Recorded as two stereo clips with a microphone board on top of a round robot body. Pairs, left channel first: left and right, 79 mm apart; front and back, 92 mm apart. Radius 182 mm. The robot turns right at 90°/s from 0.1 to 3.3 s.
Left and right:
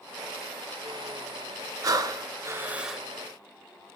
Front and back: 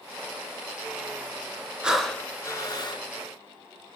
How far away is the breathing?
About 0.8 m.